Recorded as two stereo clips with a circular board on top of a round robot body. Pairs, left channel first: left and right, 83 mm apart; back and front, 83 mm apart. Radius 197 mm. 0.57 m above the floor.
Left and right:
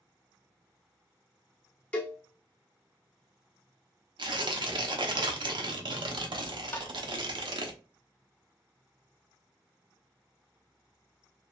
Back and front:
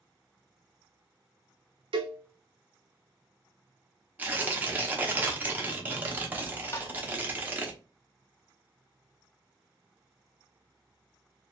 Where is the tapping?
145° left, 0.9 m.